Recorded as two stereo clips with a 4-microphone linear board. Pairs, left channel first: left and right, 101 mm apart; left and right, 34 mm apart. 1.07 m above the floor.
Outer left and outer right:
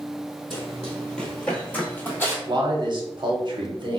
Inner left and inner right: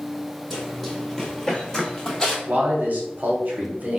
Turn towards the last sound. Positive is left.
turn(degrees=-50)  # may be behind; listen again after turning